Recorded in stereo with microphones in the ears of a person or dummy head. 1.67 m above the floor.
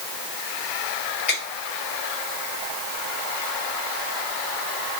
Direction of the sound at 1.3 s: 50° left (ahead or behind).